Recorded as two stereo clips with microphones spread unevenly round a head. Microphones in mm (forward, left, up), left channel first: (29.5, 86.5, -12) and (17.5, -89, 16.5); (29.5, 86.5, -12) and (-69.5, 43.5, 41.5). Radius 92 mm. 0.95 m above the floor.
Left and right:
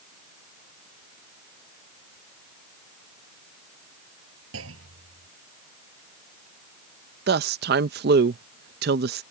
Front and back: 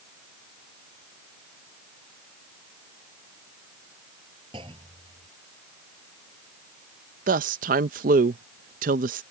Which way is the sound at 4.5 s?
95° right.